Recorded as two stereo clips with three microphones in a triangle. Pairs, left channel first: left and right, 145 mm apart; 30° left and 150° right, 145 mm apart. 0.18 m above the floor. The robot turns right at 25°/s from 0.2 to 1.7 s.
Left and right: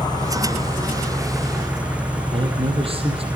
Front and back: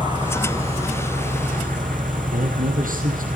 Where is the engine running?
150° left, 6 m; by 3.4 s 170° right, 6 m.